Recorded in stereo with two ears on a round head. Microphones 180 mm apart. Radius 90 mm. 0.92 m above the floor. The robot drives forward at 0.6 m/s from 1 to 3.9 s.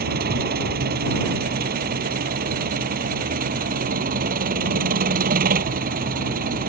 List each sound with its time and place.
0.0 s an engine running: 50° right (ahead or behind); by 6.7 s 45° right (ahead or behind)